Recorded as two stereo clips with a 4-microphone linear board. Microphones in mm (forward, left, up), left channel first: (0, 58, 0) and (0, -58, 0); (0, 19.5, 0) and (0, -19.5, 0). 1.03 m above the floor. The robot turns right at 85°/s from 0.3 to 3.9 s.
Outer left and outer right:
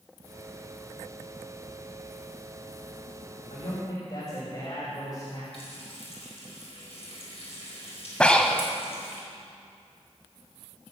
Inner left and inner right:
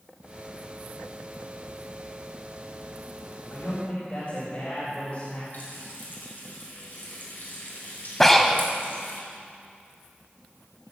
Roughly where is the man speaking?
Left.